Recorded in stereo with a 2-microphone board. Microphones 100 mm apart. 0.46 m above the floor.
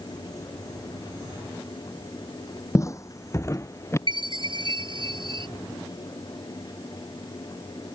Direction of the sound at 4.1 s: 55° right (ahead or behind).